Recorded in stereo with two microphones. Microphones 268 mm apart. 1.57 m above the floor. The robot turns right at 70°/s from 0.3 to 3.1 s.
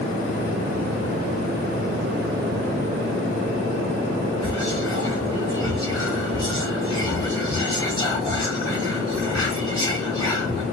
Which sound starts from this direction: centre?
Whispering, at 4.4 s.